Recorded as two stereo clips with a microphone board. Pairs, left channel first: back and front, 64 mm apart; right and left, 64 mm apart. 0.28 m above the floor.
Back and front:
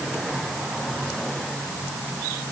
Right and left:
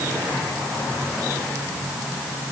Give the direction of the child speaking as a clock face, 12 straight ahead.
I don't hear a child speaking.